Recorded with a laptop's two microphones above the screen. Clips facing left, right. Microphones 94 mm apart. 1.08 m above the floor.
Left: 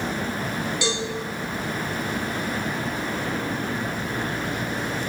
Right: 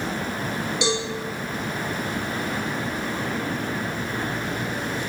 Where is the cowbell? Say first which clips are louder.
Right 4 dB; 20° right (ahead or behind), 0.7 m.